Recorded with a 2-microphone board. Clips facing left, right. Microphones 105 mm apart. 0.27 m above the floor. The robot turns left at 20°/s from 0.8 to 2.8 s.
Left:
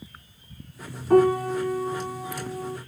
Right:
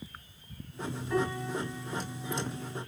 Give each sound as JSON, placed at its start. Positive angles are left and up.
{"t": 1.1, "sound": "a piano", "azimuth_deg": 115, "distance_m": 0.5}